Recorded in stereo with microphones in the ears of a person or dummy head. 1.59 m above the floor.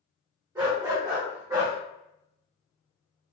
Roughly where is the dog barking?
Right.